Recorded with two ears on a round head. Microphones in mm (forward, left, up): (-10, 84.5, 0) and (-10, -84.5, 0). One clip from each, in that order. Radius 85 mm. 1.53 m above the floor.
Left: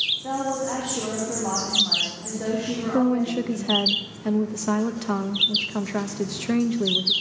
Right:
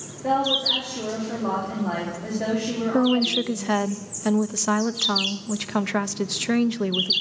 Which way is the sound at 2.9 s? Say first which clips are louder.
Right 2 dB; 40° right (ahead or behind).